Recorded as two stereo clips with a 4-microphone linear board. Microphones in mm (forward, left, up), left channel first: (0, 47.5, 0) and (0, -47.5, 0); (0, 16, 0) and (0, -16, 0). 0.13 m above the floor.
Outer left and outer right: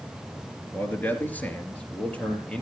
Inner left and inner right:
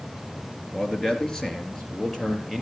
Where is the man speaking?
20° left (ahead or behind), 2.5 m; by 2.6 s 10° left (ahead or behind), 3.5 m.